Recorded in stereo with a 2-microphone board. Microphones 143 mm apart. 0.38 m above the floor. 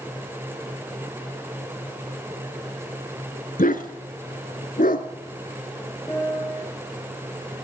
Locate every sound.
3.6 s a dog barking: 80° left, 1.1 m
6.1 s a piano: 20° left (ahead or behind), 2 m